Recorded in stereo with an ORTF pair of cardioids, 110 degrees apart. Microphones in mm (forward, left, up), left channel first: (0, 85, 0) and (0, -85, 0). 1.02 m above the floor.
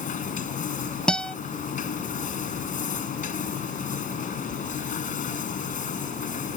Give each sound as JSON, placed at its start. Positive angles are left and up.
{"t": 0.0, "sound": "a machine running", "azimuth_deg": 50}
{"t": 1.1, "sound": "a guitar", "azimuth_deg": 5}